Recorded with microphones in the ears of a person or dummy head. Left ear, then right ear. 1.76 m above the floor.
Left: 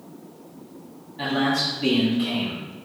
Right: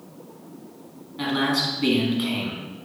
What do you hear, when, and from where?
1.2 s a man speaking: 15° right (ahead or behind), 1.6 m